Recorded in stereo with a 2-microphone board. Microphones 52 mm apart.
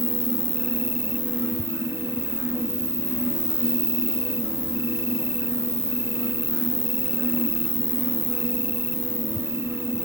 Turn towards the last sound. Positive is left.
turn(degrees=-70)  # may be behind; listen again after turning